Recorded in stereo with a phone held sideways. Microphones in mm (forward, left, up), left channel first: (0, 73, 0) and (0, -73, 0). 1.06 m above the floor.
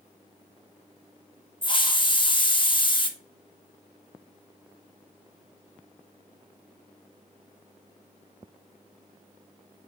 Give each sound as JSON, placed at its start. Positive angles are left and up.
{"t": 1.6, "sound": "a hiss", "side_deg": 35, "distance_m": 1.2}